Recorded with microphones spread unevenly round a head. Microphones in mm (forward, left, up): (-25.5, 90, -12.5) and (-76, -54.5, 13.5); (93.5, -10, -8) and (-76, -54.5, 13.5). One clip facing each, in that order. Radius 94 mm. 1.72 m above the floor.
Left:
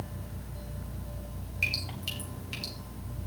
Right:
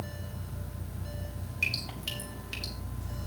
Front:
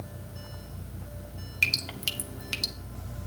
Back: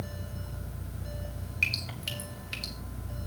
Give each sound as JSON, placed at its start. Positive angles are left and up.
{"t": 1.6, "sound": "dripping", "azimuth_deg": -15, "distance_m": 1.3}